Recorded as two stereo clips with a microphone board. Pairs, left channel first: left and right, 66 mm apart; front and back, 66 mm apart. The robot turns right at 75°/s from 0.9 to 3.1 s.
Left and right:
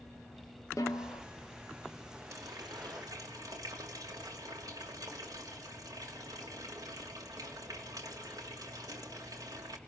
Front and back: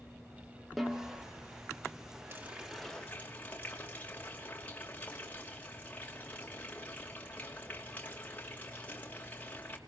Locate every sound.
0.8 s a snare drum: 90° left, 1.6 m; by 1.2 s 115° left, 1.6 m
2.3 s a running tap: 130° right, 2.5 m; by 9.8 s 70° right, 2.5 m